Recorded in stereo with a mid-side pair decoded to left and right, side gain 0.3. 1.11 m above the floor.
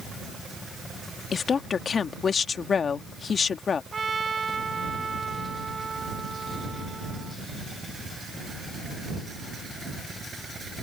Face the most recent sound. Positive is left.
turn(degrees=-45)